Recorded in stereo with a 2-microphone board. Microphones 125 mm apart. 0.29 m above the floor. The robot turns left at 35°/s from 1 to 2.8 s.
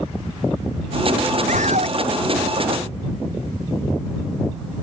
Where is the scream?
80° right; by 2.0 s 65° right (ahead or behind).